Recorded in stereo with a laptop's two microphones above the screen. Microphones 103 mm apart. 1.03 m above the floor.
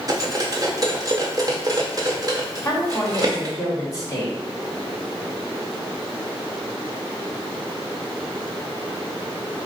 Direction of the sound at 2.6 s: 30° left (ahead or behind).